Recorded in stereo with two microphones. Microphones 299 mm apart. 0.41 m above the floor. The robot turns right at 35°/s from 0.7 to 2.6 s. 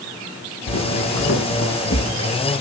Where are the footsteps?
70° left (ahead or behind), 1.8 m; by 2.1 s 65° left (ahead or behind), 3 m.